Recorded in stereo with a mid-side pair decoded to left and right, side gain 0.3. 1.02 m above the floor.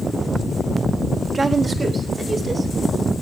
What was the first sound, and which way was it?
A woman speaking, 55° right.